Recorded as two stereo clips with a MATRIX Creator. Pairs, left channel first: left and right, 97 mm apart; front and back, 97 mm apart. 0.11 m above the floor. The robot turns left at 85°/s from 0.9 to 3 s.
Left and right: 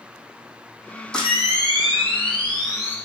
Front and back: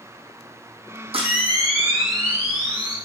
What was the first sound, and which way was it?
A camera shutter, 175° left.